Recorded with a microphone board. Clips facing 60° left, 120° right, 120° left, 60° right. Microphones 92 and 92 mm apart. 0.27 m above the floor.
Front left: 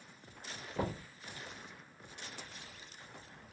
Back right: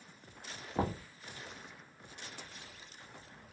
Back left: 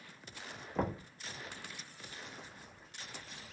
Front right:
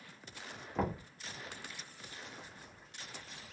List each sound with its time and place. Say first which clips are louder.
0.8 s knocking: back right 3 dB, even; 150° right, 0.9 m